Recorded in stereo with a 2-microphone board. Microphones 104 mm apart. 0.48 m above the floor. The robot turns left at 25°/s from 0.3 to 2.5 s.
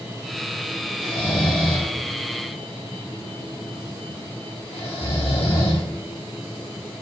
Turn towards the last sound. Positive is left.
turn(degrees=65)  # may be behind; listen again after turning